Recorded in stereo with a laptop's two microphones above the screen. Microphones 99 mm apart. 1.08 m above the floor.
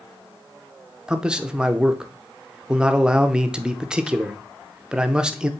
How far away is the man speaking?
About 0.6 m.